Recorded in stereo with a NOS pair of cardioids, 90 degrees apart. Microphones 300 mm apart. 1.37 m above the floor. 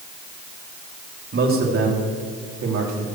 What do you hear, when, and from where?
1.3 s a man speaking: 40° right, 4 m; by 3.0 s 70° right, 4 m